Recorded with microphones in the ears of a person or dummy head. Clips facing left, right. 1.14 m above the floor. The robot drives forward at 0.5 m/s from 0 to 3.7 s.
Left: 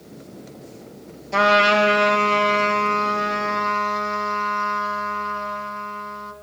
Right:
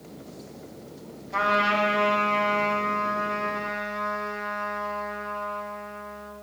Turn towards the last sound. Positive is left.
turn(degrees=65)  # may be behind; listen again after turning